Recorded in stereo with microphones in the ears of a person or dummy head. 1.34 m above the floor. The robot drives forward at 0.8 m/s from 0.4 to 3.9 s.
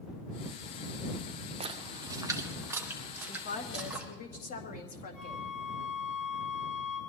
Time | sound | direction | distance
1.6 | a splash | 35° right (ahead or behind) | 0.9 m
3.3 | a woman speaking | 55° left (ahead or behind) | 1.6 m
5.1 | a flute | 50° left (ahead or behind) | 7.5 m